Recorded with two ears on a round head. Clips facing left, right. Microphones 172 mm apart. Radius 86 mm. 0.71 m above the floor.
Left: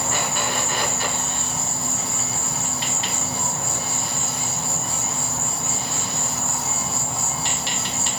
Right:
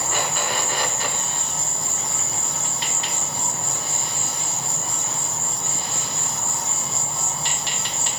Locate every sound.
0.0 s an insect: 55° left (ahead or behind), 1.0 m